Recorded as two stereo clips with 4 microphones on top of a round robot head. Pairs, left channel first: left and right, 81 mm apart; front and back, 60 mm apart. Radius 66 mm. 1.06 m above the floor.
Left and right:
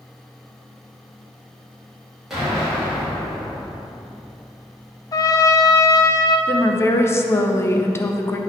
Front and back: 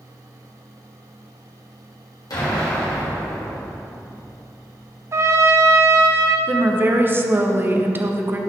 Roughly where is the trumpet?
Behind left.